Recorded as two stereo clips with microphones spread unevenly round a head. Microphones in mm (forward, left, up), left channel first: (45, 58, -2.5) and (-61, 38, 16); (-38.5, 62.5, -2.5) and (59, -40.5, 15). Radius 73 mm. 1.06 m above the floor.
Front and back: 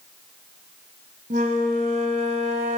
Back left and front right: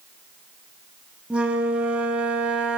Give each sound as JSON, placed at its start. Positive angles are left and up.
{"t": 1.3, "sound": "a flute", "azimuth_deg": -130, "distance_m": 5.0}